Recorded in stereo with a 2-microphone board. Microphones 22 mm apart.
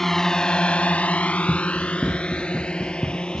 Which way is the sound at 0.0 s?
15° left (ahead or behind).